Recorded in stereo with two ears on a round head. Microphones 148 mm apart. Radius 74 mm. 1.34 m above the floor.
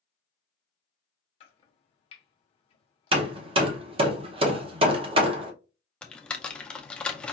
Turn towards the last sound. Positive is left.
turn(degrees=5)  # may be behind; listen again after turning